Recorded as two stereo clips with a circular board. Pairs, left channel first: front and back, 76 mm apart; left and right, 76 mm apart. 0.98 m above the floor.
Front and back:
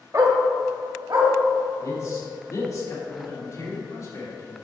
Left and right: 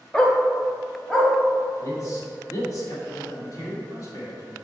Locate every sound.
0.1 s a dog barking: 165° left, 0.9 m
1.8 s a man speaking: 45° left, 2.0 m